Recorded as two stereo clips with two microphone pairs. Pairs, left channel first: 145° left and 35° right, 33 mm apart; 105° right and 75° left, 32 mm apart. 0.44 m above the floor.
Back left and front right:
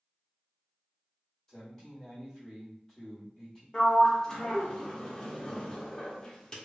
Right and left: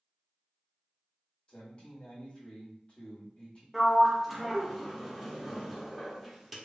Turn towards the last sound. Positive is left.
turn(degrees=160)